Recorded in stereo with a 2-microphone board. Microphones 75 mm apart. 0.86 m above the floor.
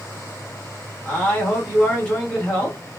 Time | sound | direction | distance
1.1 | a man speaking | 15° left (ahead or behind) | 1.4 m